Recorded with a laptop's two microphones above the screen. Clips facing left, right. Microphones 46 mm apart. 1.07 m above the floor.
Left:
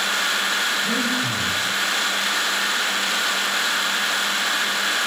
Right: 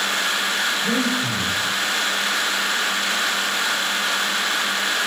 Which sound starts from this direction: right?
Breathing, at 0.8 s.